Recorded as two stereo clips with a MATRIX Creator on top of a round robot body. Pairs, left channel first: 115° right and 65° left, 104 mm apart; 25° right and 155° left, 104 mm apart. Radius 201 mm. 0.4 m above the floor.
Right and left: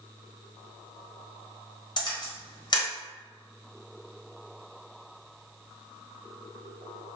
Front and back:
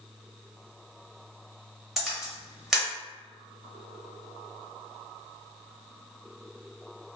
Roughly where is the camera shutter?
Behind right.